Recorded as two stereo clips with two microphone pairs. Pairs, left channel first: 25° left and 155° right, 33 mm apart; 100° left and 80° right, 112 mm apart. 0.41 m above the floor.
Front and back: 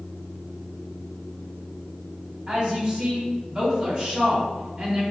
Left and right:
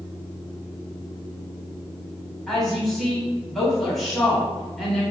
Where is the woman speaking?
175° right, 0.9 m.